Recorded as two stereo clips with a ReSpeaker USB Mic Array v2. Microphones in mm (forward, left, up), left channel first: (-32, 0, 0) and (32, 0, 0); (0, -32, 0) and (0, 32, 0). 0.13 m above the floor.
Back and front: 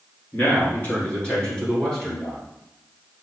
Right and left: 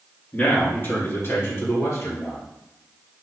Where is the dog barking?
I don't hear a dog barking.